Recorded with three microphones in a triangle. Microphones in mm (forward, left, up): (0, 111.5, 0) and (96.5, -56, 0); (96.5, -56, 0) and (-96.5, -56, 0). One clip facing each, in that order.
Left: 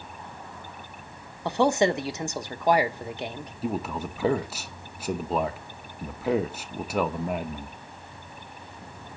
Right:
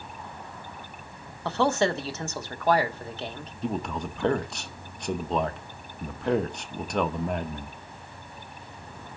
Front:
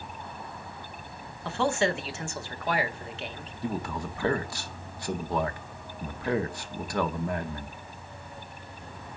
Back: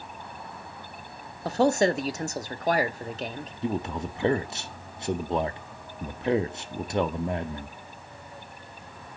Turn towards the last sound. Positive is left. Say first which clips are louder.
# even, back 3 dB
turn(degrees=-165)